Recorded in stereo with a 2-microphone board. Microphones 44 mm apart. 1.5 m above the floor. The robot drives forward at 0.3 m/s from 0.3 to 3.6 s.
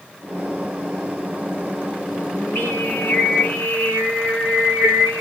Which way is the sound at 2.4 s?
50° left (ahead or behind).